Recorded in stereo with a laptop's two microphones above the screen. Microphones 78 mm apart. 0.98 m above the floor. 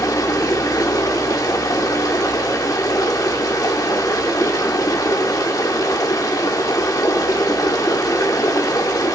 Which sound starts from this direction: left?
Running water, at 0.0 s.